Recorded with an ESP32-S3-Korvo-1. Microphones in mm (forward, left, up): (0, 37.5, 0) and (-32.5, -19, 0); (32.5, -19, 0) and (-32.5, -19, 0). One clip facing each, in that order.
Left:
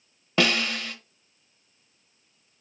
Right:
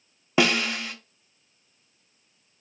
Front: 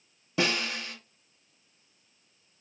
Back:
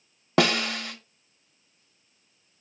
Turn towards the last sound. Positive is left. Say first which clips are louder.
# right 1 dB, back 6 dB
turn(degrees=160)